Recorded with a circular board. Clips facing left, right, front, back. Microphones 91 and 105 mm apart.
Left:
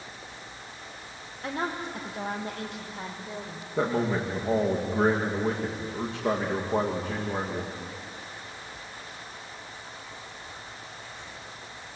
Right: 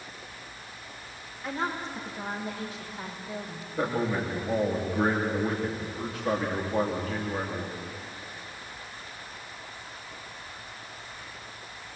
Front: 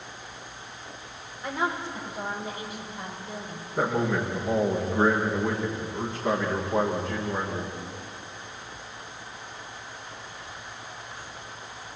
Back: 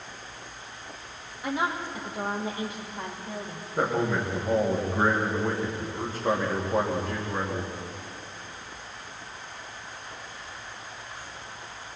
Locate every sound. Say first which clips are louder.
1.4 s a woman speaking: even, even; 100° left, 6 m; by 3.7 s 130° left, 6.5 m
3.8 s a man speaking: left 2 dB, even; 95° left, 9 m